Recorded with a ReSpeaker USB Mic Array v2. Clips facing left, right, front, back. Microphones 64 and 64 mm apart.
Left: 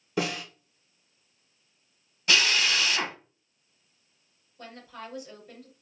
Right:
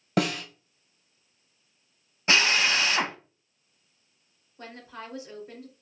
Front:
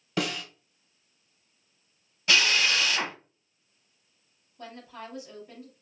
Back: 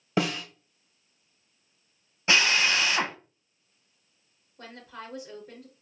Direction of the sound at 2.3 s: 135° right.